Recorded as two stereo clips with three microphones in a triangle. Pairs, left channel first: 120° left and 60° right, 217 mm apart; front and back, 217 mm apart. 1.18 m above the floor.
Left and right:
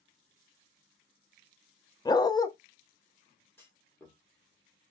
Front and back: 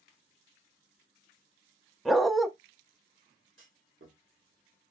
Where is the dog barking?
90° left, 0.6 m.